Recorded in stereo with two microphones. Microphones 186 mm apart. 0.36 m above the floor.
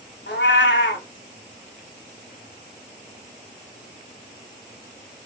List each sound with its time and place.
0.3 s a cat meowing: 75° left (ahead or behind), 0.6 m